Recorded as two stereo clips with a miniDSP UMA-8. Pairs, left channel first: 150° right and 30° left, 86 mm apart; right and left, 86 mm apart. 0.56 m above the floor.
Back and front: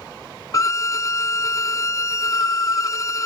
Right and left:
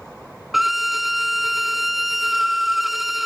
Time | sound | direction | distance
0.5 | a violin | straight behind | ?